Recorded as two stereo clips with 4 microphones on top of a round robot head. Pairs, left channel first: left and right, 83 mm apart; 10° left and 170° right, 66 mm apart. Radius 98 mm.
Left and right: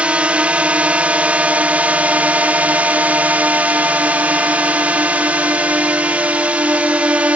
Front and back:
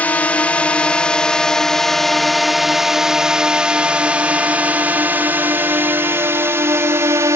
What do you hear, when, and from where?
0.0 s a drone: 30° right; by 7.4 s 160° right